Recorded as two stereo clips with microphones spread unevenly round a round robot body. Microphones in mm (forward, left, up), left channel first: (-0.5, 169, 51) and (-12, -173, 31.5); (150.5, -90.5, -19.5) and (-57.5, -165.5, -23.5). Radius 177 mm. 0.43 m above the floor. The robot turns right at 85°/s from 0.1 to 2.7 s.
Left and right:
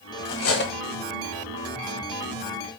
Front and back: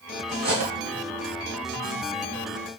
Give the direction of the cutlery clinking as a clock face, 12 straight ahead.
8 o'clock.